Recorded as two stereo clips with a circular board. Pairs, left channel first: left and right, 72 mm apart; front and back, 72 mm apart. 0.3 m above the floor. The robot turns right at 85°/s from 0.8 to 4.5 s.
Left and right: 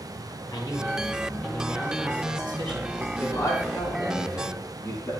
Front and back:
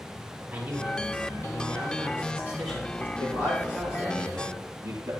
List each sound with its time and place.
0.5 s a man speaking: 105° left, 8 m; by 3.1 s 60° right, 8 m
3.2 s a man speaking: 35° left, 8 m; by 5.1 s 150° left, 8 m